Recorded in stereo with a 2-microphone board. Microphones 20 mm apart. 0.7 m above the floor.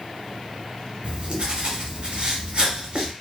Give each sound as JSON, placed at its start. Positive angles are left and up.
{"t": 1.0, "sound": "writing", "side_deg": -55, "distance_m": 1.0}